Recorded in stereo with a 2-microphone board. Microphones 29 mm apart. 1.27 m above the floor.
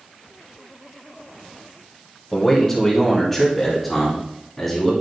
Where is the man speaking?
10° left (ahead or behind), 1.8 m; by 4.9 s 5° left (ahead or behind), 3 m.